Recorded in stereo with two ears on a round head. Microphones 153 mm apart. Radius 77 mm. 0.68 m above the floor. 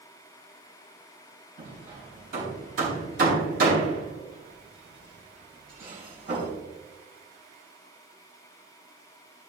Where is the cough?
No cough in this recording.